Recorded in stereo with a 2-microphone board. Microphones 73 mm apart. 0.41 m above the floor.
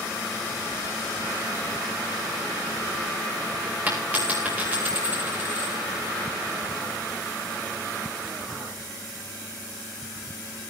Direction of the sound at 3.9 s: 20° right (ahead or behind).